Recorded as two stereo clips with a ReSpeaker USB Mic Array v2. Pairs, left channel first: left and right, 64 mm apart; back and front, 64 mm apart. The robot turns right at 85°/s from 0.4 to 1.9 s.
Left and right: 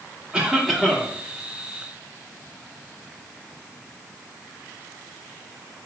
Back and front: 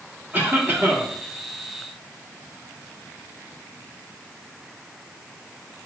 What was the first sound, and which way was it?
A cough, 25° right.